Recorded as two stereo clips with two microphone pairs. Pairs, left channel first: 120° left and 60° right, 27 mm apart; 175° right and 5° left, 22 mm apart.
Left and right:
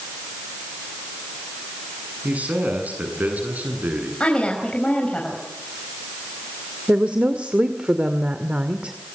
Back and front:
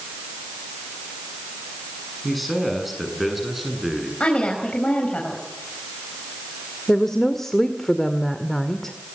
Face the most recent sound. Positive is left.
turn(degrees=-100)